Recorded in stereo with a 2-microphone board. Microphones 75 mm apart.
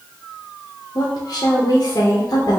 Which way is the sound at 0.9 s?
50° left (ahead or behind).